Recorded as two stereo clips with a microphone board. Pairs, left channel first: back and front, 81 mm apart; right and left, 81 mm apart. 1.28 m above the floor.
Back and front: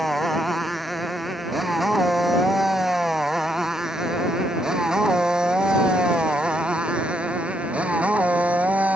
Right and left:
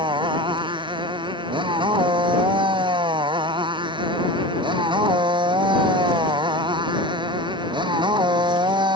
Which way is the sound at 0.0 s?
90° left.